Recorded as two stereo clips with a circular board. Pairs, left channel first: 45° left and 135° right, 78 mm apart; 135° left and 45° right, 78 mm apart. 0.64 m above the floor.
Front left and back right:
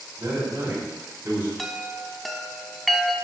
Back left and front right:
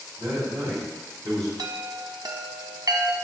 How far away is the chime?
About 0.8 m.